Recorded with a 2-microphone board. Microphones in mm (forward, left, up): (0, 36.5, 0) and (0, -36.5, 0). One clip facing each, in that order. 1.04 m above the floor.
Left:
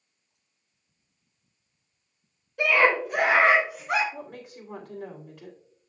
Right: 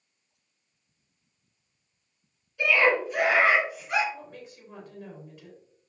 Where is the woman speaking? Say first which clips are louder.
Left 3 dB; 85° left, 3 m.